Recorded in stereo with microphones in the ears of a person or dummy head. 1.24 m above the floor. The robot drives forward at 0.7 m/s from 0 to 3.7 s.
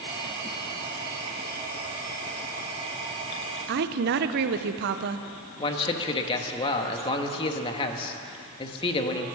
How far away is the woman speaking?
About 0.9 m.